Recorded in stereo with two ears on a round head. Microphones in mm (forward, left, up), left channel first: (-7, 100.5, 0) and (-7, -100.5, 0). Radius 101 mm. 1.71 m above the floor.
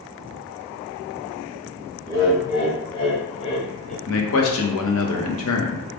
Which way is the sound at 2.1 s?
20° left (ahead or behind).